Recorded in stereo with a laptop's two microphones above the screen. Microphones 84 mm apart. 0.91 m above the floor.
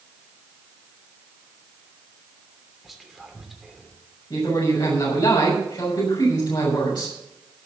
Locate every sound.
2.8 s whispering: centre (ahead or behind), 3 m
4.3 s a man speaking: 60° left (ahead or behind), 6.5 m